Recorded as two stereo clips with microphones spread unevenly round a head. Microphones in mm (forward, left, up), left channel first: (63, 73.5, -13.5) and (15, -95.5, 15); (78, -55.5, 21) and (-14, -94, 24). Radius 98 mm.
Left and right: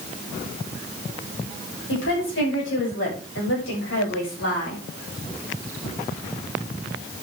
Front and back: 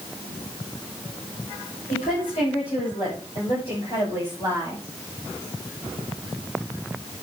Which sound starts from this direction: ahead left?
A woman speaking, at 1.9 s.